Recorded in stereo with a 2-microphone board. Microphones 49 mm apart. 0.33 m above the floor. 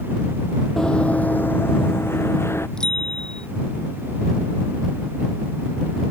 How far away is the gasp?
I don't hear a gasp.